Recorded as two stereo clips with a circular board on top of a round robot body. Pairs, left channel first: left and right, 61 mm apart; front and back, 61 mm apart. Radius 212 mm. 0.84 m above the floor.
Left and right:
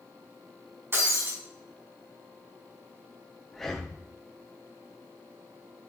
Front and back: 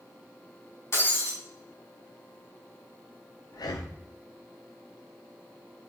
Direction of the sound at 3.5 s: 5° left.